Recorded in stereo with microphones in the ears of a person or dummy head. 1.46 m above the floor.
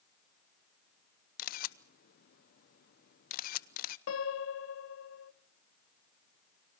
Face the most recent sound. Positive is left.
turn(degrees=85)